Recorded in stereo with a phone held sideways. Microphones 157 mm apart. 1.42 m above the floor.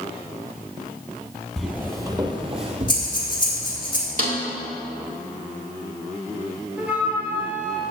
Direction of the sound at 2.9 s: 30° left (ahead or behind).